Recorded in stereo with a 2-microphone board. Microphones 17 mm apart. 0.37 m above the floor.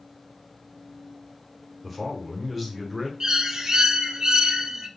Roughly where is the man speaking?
Centre.